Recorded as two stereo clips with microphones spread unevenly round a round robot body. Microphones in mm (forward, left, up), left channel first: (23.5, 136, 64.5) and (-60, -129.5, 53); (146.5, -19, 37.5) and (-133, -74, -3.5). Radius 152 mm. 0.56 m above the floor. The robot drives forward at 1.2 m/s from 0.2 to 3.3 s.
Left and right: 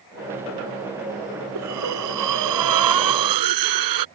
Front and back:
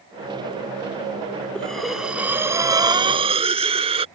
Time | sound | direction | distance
1.6 | breathing | 75° right | ?